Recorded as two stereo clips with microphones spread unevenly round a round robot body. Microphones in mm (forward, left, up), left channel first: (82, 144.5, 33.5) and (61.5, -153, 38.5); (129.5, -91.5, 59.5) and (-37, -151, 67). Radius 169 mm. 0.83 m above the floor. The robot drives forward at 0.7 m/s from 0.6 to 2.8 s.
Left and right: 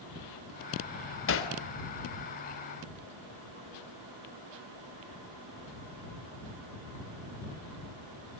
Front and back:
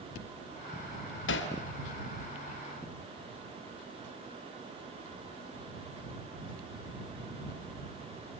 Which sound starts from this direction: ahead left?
Hammering, at 1.3 s.